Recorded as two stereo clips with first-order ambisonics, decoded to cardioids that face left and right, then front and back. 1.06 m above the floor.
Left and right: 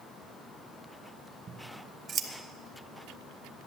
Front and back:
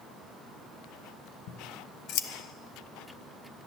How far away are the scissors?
About 0.9 m.